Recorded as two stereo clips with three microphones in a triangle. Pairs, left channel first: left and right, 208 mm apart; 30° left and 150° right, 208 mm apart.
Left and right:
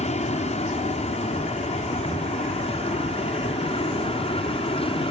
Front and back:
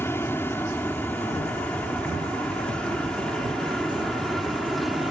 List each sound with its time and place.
0.0 s an aircraft: 100° left; by 5.1 s 120° left